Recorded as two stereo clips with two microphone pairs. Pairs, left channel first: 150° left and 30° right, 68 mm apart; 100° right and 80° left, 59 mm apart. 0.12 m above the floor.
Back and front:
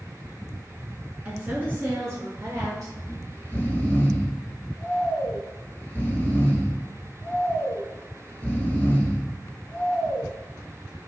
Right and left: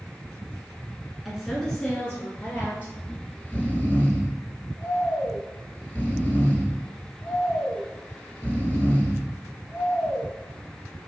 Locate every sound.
1.2 s a woman speaking: 10° right, 1.0 m; by 2.9 s 50° right, 1.6 m
3.0 s snoring: 155° right, 1.2 m